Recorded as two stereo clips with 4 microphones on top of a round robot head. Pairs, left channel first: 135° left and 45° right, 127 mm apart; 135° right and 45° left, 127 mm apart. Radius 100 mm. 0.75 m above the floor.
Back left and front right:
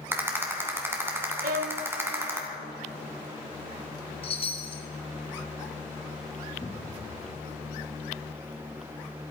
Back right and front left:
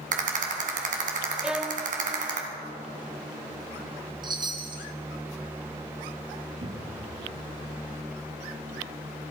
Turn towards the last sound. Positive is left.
turn(degrees=65)